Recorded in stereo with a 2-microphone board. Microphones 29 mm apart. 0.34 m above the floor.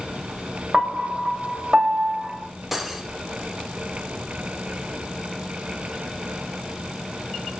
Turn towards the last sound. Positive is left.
turn(degrees=-10)  # may be behind; listen again after turning